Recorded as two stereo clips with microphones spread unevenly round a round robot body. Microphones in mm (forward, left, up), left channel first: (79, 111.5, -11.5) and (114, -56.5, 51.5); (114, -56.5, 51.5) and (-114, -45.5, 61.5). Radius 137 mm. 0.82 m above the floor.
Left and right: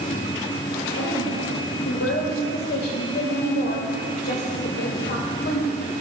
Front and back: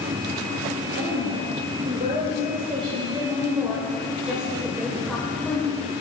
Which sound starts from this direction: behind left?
A woman speaking, at 0.9 s.